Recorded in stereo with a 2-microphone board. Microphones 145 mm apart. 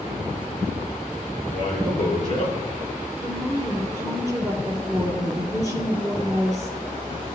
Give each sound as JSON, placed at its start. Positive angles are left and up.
{"t": 1.5, "sound": "a man speaking", "side_deg": 60, "distance_m": 6.0}
{"t": 3.2, "sound": "a woman speaking", "side_deg": 20, "distance_m": 2.0}